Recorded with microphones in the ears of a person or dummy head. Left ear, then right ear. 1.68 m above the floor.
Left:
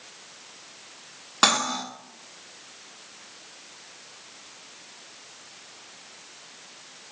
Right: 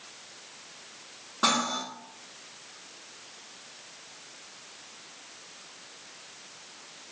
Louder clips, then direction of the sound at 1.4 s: Left 4 dB; 35° left (ahead or behind).